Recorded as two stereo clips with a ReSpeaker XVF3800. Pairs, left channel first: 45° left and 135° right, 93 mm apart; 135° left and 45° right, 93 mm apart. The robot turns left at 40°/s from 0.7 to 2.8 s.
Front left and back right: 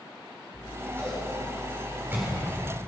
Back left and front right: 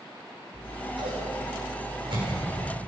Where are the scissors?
15° right, 6.5 m; by 2.8 s 95° right, 6.5 m.